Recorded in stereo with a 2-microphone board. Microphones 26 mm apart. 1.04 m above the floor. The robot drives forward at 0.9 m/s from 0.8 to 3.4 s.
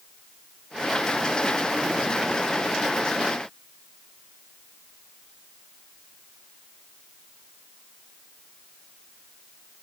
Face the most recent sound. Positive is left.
No sound to turn to.